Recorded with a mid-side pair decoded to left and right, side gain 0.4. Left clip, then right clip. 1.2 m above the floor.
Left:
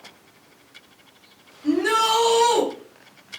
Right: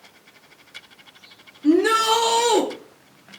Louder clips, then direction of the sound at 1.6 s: Right 2 dB; 65° right.